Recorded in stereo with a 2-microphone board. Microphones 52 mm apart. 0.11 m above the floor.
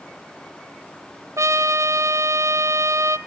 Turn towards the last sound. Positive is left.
turn(degrees=-75)  # may be behind; listen again after turning